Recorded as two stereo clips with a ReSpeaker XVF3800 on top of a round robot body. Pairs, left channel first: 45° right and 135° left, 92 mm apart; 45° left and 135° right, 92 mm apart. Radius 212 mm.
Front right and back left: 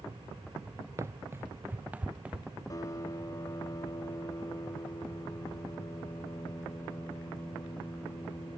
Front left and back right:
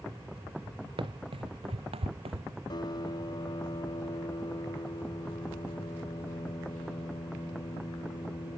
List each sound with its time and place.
1.0 s running footsteps: 165° right; by 2.5 s 145° right
2.7 s a piano: 5° left